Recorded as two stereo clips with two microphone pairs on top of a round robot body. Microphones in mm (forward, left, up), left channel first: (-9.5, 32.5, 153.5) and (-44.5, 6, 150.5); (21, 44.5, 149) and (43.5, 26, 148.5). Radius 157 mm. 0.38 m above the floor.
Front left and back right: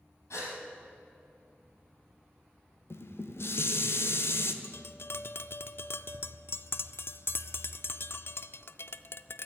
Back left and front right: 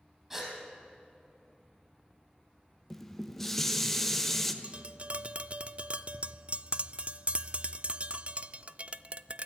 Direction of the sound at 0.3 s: 35° left.